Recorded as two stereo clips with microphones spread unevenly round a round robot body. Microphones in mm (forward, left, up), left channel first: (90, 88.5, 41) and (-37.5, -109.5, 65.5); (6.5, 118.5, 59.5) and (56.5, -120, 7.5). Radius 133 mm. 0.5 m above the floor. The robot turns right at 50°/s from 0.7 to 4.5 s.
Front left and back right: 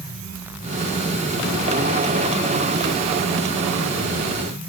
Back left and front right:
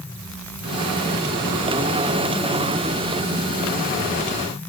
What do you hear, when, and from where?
Only background noise.